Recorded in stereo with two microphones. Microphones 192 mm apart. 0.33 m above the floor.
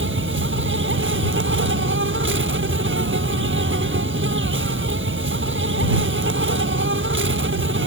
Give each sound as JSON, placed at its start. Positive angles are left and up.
{"t": 0.0, "sound": "an insect", "side_deg": -80}